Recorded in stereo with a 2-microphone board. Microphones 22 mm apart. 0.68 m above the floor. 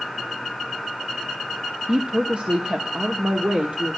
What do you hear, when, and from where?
1.9 s a woman speaking: 45° right (ahead or behind), 0.8 m; by 4.0 s 60° right (ahead or behind), 1.6 m